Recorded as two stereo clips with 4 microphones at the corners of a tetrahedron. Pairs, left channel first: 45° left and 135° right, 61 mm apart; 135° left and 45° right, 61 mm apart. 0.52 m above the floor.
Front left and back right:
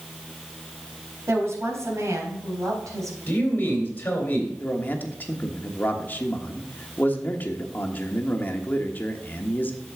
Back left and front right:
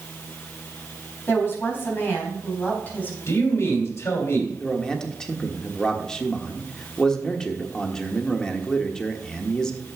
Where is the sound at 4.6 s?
70° left, 1.3 m.